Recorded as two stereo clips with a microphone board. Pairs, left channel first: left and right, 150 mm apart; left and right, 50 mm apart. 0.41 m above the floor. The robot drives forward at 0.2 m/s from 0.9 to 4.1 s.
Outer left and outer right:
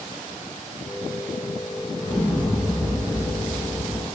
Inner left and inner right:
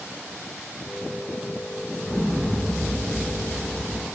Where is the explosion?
20° left (ahead or behind), 2 m; by 4.0 s 15° left (ahead or behind), 2.5 m.